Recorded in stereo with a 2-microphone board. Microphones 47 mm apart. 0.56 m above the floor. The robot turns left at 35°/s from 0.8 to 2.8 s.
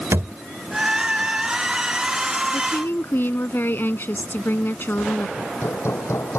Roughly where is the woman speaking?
Left.